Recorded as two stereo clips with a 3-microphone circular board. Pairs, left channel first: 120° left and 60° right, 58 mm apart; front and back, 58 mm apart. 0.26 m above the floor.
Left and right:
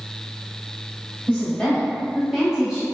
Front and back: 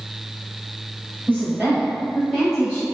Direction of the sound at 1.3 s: 170° left.